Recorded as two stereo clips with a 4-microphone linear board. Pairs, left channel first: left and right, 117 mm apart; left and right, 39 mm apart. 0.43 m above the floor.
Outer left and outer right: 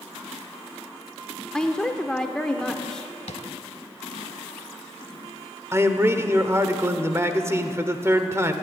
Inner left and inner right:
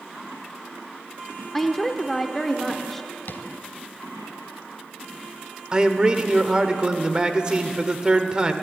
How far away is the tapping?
About 0.9 m.